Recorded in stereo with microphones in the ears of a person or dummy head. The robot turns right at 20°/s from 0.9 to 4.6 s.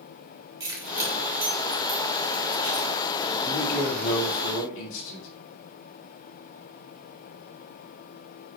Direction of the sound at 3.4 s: 40° left (ahead or behind).